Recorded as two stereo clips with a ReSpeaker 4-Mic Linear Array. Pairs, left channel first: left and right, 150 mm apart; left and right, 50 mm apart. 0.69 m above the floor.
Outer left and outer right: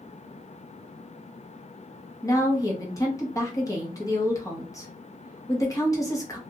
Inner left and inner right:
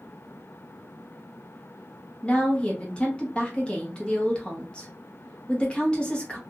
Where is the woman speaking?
20° left (ahead or behind), 1.2 m.